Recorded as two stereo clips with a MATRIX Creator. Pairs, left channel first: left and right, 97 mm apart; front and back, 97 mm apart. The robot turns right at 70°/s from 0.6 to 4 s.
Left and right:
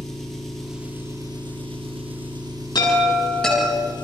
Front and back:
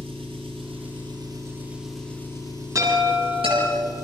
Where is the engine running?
175° left, 5 m; by 4.0 s 55° left, 5 m.